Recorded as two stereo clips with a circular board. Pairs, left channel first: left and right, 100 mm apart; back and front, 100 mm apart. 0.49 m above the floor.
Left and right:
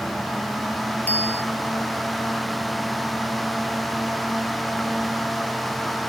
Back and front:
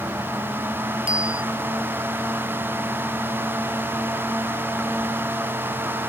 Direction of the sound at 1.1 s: 20° left.